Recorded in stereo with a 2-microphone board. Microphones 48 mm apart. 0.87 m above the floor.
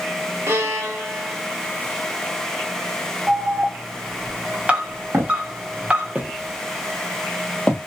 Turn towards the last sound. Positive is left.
turn(degrees=20)  # may be behind; listen again after turning